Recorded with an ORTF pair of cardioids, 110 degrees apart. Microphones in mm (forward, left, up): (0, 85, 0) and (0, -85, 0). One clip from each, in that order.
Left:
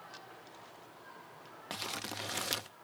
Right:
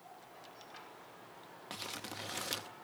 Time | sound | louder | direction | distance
1.7 | crumpling | left 4 dB | 20° left | 0.7 m